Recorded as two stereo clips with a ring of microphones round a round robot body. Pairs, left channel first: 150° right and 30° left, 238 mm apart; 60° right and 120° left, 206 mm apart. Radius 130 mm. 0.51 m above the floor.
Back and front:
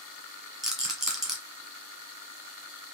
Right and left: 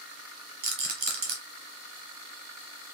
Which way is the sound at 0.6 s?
120° left.